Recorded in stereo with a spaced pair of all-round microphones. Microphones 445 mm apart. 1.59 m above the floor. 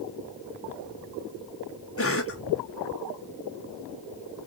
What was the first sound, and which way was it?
A cough, 30° left (ahead or behind).